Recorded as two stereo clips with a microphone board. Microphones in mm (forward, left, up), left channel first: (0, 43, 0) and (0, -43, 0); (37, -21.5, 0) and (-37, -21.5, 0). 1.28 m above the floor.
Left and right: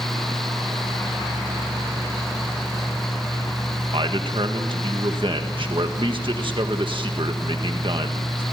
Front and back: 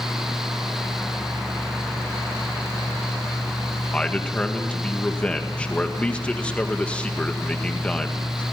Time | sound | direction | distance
3.9 | a man speaking | 75° right | 1.8 m